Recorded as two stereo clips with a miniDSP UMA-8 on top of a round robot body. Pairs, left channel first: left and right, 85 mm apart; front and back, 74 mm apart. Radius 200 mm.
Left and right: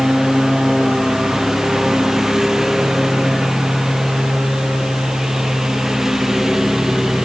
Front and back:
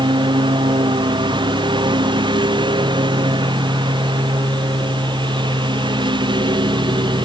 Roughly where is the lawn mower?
Behind.